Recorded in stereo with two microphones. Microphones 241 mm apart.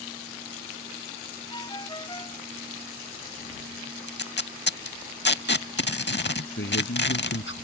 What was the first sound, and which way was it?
A ringtone, 20° left (ahead or behind).